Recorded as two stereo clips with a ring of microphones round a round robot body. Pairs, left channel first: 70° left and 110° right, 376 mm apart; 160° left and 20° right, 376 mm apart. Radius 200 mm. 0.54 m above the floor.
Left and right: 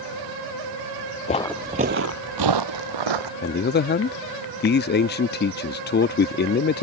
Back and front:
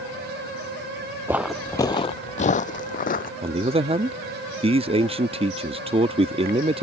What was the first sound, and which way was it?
Footsteps, 50° left.